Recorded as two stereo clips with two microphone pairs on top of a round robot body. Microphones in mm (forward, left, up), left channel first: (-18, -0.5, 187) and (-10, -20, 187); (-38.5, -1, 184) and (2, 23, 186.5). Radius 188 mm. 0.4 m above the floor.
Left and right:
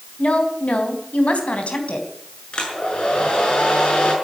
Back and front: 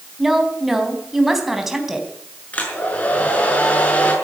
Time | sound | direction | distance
0.2 | a woman speaking | 115° left | 4 m
2.5 | a hair dryer | 150° left | 6.5 m